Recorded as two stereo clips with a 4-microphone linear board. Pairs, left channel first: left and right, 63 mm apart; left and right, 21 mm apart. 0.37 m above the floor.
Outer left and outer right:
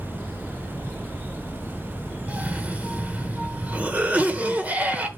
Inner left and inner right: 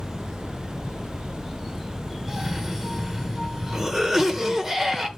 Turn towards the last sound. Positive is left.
turn(degrees=-25)  # may be behind; listen again after turning